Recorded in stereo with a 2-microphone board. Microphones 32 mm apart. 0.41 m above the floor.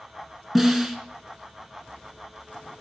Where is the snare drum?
Centre (ahead or behind), 1.0 m.